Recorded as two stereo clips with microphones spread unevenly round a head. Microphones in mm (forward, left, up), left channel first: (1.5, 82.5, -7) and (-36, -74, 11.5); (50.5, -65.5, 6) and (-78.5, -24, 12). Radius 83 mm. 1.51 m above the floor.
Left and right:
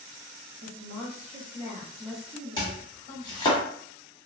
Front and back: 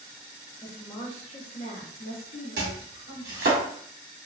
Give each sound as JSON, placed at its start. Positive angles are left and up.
{"t": 0.6, "sound": "a woman speaking", "azimuth_deg": -85, "distance_m": 1.0}
{"t": 2.6, "sound": "chopping", "azimuth_deg": 140, "distance_m": 0.9}